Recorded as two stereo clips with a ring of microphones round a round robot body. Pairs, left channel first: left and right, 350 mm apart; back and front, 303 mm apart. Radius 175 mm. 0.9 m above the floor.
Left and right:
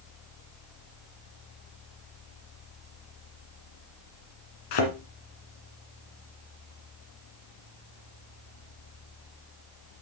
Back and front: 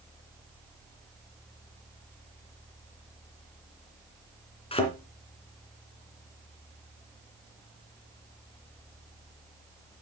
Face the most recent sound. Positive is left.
turn(degrees=110)